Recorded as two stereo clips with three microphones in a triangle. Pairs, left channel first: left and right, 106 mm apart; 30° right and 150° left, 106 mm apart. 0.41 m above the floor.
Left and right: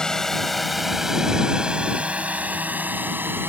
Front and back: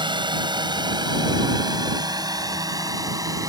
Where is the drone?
170° left; by 3.5 s 155° right.